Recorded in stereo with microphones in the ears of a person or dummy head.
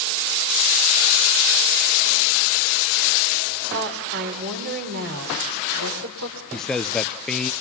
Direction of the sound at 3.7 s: 60° right (ahead or behind).